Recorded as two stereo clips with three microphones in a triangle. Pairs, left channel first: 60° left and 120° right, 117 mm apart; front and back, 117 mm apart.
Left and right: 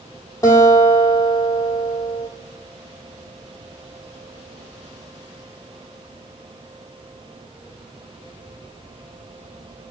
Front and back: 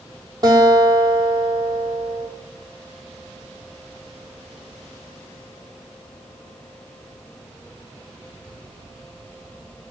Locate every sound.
0.4 s a guitar: 125° left, 1.6 m